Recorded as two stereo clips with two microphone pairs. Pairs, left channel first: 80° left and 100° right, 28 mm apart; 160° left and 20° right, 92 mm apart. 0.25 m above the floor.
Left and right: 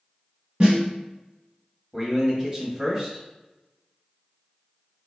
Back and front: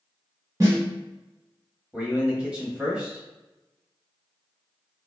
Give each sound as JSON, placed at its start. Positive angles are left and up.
{"t": 0.6, "sound": "a snare drum", "azimuth_deg": -60, "distance_m": 1.7}
{"t": 1.9, "sound": "a man speaking", "azimuth_deg": -80, "distance_m": 1.0}